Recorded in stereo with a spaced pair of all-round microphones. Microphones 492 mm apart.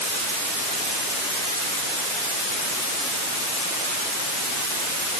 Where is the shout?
No shout in this recording.